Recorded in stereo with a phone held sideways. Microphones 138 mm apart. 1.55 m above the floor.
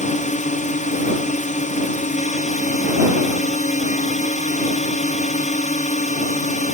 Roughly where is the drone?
Left.